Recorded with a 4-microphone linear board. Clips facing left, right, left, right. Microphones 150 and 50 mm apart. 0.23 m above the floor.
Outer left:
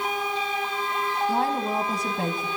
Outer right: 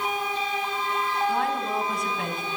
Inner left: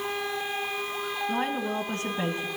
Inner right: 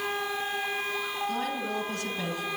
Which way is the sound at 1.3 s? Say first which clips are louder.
Outer left 1 dB, inner left 2 dB; 35° left (ahead or behind).